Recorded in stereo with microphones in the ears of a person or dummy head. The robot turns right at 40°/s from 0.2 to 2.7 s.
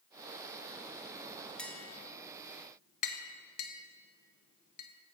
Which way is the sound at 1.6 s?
Centre (ahead or behind).